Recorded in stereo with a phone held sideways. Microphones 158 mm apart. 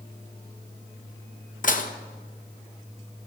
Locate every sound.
1.6 s dishes clattering: 55° left (ahead or behind), 0.7 m